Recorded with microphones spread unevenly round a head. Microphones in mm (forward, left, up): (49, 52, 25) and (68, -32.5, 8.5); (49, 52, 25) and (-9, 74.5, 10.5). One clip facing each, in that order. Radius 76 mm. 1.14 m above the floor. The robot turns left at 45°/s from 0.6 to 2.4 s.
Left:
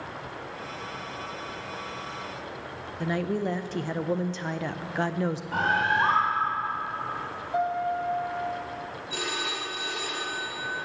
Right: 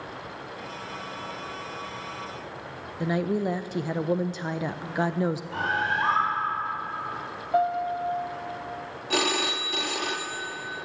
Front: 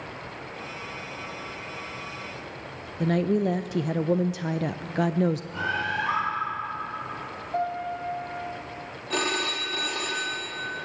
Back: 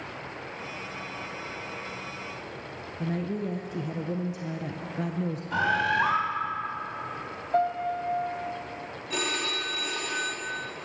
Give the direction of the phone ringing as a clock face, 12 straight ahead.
3 o'clock.